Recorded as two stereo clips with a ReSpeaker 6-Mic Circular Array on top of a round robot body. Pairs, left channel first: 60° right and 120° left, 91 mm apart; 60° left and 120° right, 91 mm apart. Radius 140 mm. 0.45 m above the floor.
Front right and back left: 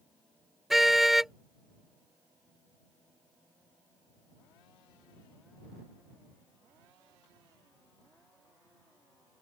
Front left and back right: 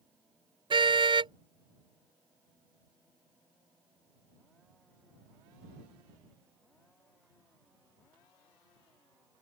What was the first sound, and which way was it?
A car horn, 155° right.